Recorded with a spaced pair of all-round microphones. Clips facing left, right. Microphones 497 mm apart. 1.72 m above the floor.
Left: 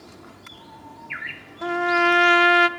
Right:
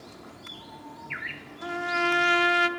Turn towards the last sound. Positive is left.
turn(degrees=80)